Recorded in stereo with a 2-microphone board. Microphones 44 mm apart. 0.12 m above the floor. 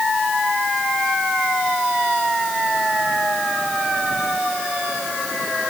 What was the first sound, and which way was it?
Only background noise.